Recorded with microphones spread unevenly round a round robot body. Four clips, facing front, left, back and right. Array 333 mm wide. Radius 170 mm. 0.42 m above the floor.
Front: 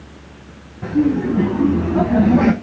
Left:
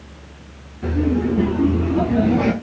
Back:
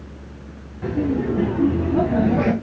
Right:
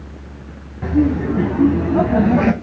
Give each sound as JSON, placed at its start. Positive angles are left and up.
{"t": 0.8, "sound": "laughter", "azimuth_deg": -80, "distance_m": 4.0}